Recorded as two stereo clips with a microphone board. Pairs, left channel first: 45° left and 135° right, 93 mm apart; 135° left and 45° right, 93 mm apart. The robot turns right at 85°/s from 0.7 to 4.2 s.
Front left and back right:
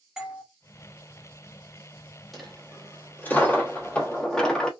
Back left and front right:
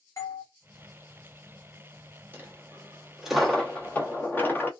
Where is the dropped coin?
45° right, 1.0 m; by 4.7 s 115° left, 1.0 m.